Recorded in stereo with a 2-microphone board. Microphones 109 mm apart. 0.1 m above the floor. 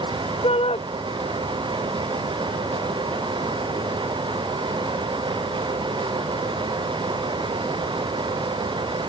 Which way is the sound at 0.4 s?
65° left (ahead or behind).